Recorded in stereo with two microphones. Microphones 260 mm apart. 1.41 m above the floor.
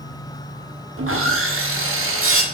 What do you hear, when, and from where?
1.0 s sawing: 55° right (ahead or behind), 0.6 m